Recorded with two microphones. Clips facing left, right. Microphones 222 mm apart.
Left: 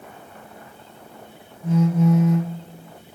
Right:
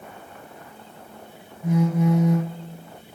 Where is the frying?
No frying in this recording.